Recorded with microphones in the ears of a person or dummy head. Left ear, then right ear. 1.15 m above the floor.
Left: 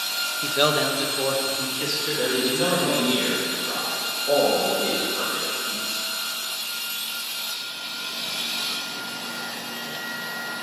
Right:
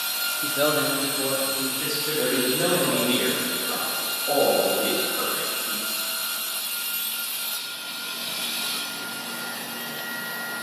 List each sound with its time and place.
0.4 s a man speaking: 35° left (ahead or behind), 0.6 m; by 3.1 s 85° left, 3.5 m
2.2 s a man speaking: 20° left (ahead or behind), 2 m